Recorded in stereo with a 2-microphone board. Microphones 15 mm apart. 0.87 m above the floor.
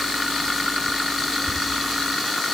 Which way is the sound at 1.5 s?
45° right (ahead or behind).